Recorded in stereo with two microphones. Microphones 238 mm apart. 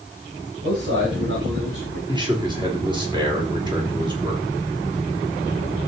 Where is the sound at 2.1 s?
20° right (ahead or behind), 3.5 m.